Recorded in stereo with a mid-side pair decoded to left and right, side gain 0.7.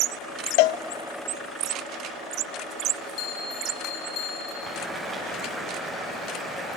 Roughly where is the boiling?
Ahead.